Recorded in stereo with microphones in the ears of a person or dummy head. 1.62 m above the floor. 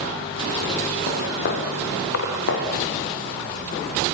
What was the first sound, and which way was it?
Footsteps, 45° left (ahead or behind).